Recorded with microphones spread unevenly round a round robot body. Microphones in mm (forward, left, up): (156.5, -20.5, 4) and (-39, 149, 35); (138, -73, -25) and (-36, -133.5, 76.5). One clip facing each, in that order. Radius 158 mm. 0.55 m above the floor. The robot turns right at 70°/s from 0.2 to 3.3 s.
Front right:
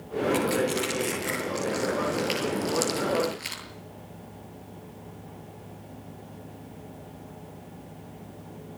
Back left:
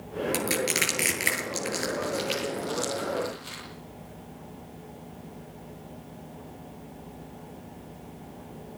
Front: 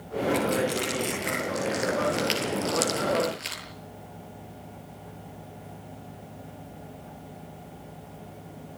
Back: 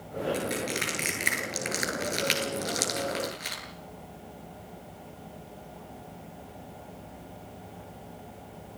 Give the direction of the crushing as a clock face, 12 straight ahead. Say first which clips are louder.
Front right 5 dB, front 6 dB; 8 o'clock.